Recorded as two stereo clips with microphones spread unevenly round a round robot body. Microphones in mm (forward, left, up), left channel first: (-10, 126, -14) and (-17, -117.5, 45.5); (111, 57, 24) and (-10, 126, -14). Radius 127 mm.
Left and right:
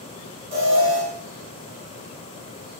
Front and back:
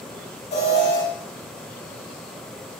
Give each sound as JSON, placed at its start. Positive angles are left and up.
{"t": 0.5, "sound": "an alarm", "azimuth_deg": -35, "distance_m": 4.0}